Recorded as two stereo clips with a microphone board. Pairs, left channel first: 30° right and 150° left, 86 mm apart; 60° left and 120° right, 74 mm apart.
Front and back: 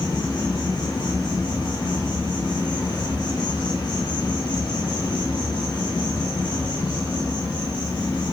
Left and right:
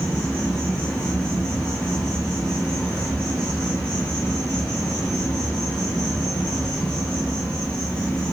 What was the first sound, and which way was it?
An insect, 20° right.